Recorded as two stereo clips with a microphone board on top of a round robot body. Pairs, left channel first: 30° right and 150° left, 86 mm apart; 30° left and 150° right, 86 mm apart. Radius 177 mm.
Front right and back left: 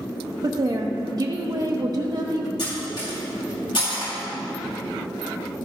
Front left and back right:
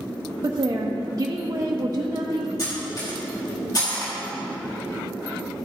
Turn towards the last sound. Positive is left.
turn(degrees=-15)